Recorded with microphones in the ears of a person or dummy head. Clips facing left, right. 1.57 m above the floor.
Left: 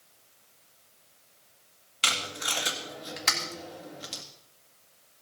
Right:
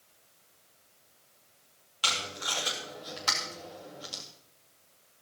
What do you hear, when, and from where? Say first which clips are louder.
2.0 s tape being pulled: left 2 dB; 30° left (ahead or behind), 3.5 m